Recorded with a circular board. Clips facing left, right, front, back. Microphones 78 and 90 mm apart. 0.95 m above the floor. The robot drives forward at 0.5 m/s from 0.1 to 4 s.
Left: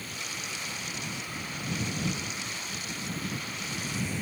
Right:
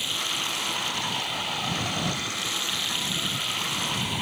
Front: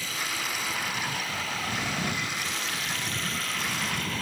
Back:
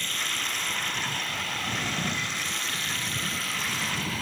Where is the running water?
85° right; by 4.2 s 90° right.